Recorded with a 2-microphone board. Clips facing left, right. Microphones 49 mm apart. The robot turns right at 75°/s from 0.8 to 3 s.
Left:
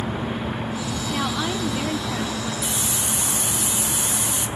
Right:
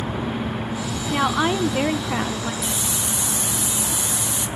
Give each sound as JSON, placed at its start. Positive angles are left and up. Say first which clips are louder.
{"t": 1.1, "sound": "a woman speaking", "louder": "right 6 dB", "azimuth_deg": -145, "distance_m": 0.8}
{"t": 2.6, "sound": "a hiss", "louder": "even", "side_deg": 5, "distance_m": 2.0}